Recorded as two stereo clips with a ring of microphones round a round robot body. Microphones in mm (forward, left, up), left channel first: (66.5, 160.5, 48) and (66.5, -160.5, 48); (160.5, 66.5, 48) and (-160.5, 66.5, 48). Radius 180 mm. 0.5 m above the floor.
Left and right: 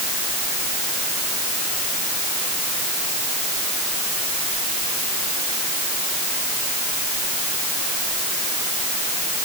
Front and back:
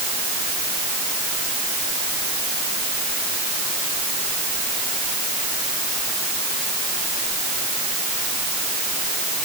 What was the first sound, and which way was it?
Only background noise.